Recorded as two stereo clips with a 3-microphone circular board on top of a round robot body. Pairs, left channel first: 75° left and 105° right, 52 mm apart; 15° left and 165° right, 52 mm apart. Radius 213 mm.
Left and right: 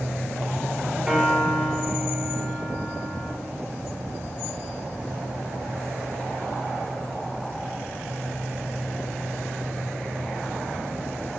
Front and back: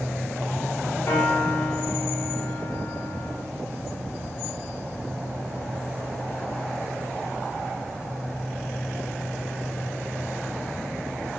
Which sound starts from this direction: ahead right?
A piano, at 1.1 s.